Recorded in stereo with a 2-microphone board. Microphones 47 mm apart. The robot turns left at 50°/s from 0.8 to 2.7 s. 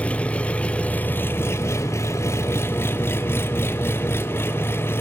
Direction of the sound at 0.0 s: 150° left.